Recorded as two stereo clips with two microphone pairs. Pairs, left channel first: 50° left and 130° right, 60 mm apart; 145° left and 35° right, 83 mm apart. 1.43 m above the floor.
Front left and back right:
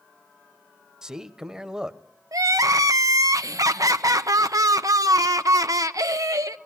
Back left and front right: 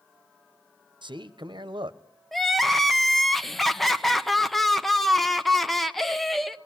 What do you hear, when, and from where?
1.0 s a man speaking: 50° right, 1.0 m
2.3 s crying: 130° right, 0.8 m